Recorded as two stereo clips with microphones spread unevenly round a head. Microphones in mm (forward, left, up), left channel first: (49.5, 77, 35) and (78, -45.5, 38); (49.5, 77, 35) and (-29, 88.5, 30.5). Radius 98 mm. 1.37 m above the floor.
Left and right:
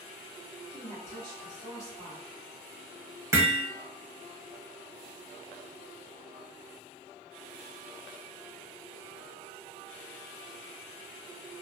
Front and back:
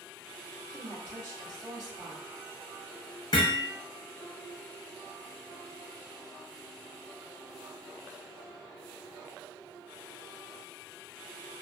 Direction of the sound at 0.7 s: 155° left.